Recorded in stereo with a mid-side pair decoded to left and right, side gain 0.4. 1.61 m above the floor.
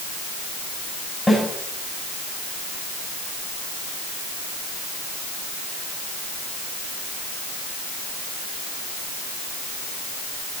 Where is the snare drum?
15° left, 9 m.